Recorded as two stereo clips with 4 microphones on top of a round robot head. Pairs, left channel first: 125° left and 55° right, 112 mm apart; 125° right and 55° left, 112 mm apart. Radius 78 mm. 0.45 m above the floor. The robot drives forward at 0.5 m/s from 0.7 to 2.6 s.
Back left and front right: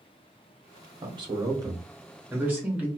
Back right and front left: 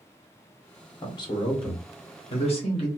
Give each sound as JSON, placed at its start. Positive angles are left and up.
{"t": 1.0, "sound": "a man speaking", "azimuth_deg": -85, "distance_m": 1.1}